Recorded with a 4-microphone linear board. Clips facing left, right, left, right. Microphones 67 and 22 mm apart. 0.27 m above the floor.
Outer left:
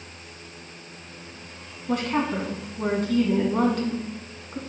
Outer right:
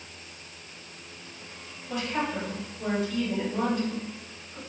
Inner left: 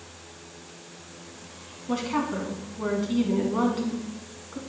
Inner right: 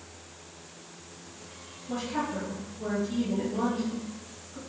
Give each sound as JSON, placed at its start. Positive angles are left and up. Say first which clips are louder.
{"t": 1.9, "sound": "a woman speaking", "louder": "outer left 5 dB, inner left 4 dB", "side_deg": 60, "distance_m": 2.5}